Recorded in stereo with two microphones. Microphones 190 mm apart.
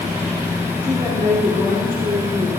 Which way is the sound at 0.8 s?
45° right (ahead or behind).